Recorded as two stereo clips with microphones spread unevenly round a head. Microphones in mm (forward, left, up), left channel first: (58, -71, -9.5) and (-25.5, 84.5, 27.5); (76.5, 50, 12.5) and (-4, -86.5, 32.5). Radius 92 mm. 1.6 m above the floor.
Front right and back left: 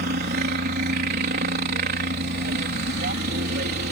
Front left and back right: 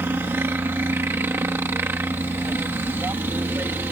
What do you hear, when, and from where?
0.0 s a helicopter: 160° left